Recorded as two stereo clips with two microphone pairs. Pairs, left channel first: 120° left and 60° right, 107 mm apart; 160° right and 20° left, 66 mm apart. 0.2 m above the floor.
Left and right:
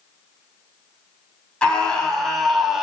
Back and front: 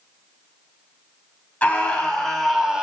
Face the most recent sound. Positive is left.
turn(degrees=5)